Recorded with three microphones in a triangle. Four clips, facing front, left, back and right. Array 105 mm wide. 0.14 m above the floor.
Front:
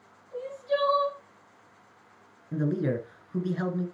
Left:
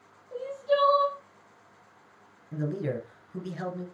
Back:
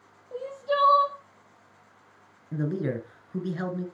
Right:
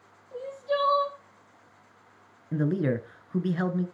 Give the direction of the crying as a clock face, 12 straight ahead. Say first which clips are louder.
Left 3 dB, back 1 dB; 7 o'clock.